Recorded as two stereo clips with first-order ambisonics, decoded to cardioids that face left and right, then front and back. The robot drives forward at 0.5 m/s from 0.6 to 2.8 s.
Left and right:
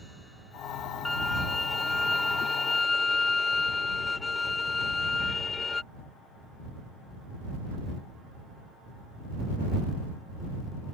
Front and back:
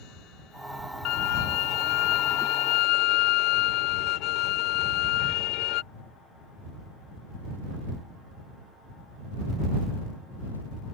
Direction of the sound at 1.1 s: 5° left.